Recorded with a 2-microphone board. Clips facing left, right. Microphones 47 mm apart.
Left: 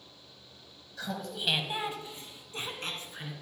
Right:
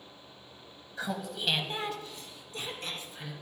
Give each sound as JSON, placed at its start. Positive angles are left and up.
{"t": 1.0, "sound": "laughter", "side_deg": -25, "distance_m": 1.2}